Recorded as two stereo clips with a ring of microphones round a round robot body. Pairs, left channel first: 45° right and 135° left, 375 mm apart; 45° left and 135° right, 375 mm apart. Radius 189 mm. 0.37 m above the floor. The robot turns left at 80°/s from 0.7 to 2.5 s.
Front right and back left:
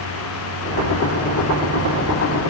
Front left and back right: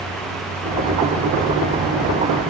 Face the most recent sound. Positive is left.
No sound to turn to.